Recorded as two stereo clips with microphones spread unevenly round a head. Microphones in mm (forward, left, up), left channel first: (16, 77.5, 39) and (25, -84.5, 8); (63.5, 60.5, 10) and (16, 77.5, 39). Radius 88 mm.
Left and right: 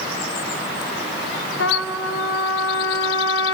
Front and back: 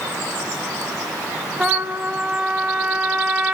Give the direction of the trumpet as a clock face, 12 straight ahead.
9 o'clock.